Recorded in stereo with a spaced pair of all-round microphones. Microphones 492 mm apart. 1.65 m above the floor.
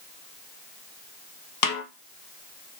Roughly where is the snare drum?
Left.